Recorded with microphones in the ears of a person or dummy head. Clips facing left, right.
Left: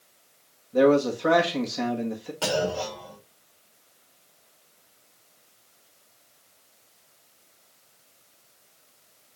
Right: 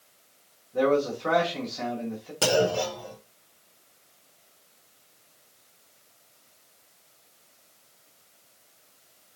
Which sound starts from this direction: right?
A clunk, at 2.4 s.